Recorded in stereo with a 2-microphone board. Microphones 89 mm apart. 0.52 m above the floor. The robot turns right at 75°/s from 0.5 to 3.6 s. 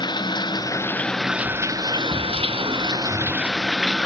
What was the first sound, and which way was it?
Running water, 125° left.